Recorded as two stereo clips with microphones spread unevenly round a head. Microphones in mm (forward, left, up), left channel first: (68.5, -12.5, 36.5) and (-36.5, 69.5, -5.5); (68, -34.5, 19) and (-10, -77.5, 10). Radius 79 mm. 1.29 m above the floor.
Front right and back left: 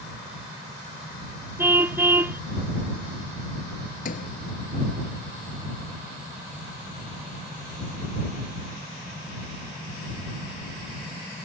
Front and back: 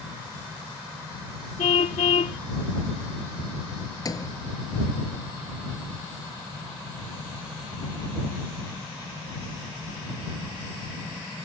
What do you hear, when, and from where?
1.6 s a car horn: 60° left
4.0 s a sliding door: 20° right